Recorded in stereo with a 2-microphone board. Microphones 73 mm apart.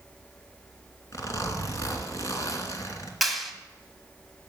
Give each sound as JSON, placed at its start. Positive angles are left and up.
{"t": 1.1, "sound": "a zipper", "side_deg": 50, "distance_m": 2.5}
{"t": 3.2, "sound": "a clap", "side_deg": 0, "distance_m": 1.8}